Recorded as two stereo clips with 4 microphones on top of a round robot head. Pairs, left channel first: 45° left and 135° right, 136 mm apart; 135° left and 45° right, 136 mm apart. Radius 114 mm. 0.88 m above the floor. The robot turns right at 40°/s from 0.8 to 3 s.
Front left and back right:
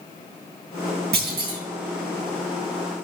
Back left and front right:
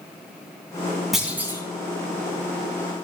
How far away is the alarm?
I don't hear an alarm.